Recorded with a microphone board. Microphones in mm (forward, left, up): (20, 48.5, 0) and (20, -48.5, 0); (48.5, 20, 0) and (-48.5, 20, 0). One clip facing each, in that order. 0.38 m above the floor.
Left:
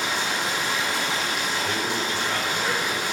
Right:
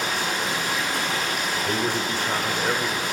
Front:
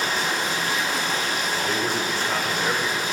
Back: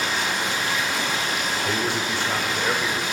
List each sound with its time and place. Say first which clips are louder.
0.0 s running water: even, even; 50° right, 4 m
1.6 s a man speaking: right 2 dB, back 1 dB; 90° right, 0.9 m